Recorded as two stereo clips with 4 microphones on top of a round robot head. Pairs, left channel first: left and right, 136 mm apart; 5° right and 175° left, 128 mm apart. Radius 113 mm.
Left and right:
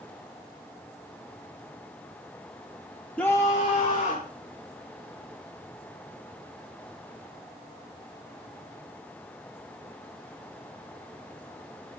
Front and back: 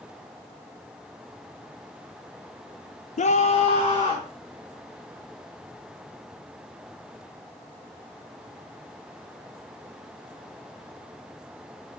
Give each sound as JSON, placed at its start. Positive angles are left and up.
{"t": 3.2, "sound": "a scream", "azimuth_deg": 10, "distance_m": 0.6}